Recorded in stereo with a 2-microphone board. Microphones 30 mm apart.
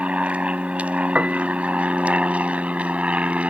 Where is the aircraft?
60° right (ahead or behind).